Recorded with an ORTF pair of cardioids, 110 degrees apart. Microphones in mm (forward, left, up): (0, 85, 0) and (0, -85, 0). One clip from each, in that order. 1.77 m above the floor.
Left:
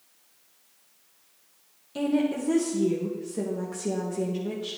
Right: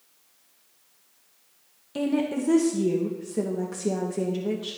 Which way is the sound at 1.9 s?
25° right.